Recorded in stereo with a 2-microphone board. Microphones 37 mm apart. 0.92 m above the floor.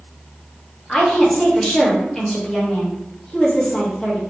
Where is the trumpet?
No trumpet in this recording.